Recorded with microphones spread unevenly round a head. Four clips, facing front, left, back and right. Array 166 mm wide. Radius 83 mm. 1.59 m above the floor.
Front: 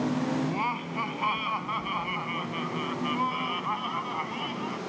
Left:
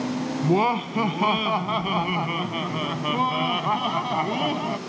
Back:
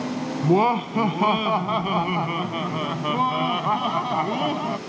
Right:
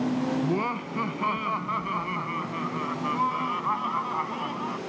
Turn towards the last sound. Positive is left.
turn(degrees=140)